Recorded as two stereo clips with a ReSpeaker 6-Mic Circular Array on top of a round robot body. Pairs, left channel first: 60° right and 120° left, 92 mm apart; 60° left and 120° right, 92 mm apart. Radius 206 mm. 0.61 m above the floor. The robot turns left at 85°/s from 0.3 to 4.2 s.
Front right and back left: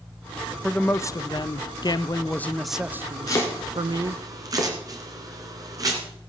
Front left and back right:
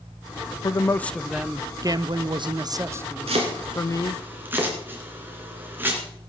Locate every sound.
0.6 s a man speaking: 20° left, 0.8 m; by 4.2 s 80° left, 0.8 m
3.3 s chopping: 110° right, 2.5 m; by 6.0 s 170° left, 2.5 m